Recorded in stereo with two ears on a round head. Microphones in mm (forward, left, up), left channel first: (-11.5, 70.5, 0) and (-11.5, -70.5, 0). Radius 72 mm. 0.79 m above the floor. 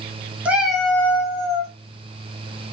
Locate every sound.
0.5 s a cat meowing: 10° right (ahead or behind), 0.8 m; by 1.7 s 25° left (ahead or behind), 1.1 m